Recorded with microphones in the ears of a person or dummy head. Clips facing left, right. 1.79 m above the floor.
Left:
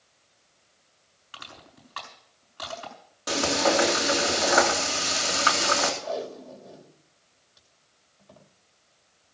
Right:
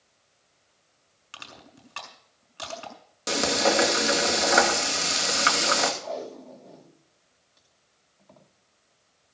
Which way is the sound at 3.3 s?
35° right (ahead or behind).